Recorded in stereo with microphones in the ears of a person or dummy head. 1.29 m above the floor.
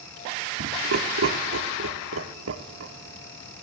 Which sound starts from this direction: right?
Laughter, at 0.6 s.